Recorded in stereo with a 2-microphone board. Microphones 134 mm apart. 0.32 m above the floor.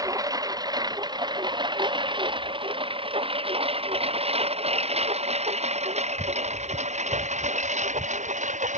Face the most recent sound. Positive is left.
turn(degrees=-65)  # may be behind; listen again after turning